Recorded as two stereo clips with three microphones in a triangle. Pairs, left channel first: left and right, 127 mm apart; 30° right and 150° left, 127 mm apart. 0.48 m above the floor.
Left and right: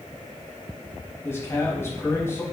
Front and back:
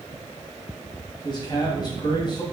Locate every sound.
1.2 s a man speaking: 20° left, 3 m